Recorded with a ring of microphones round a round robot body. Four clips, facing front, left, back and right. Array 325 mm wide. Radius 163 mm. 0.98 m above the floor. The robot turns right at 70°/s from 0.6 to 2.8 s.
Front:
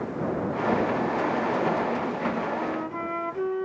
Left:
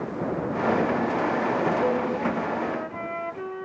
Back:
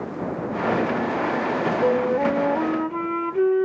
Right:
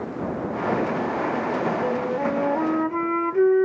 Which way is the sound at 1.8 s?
170° left.